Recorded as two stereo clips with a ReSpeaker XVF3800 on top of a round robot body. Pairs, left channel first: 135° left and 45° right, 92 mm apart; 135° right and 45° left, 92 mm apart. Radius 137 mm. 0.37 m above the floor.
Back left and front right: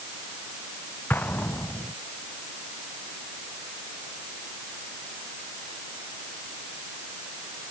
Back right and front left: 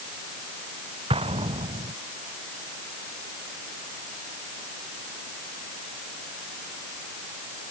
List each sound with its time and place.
1.1 s an explosion: 65° left